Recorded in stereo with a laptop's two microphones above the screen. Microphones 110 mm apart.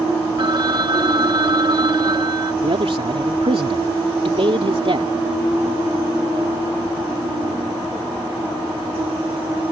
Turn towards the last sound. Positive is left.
turn(degrees=-60)  # may be behind; listen again after turning